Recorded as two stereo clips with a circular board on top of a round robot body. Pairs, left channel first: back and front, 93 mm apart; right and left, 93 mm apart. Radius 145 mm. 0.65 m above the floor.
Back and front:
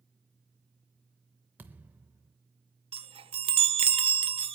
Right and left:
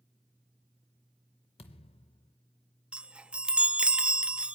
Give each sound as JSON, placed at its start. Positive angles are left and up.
{"t": 1.6, "sound": "a thud", "azimuth_deg": -70, "distance_m": 0.5}
{"t": 2.9, "sound": "a chime", "azimuth_deg": 10, "distance_m": 0.6}